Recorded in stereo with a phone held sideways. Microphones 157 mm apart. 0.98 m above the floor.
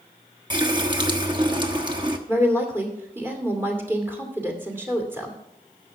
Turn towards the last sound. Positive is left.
turn(degrees=-15)  # may be behind; listen again after turning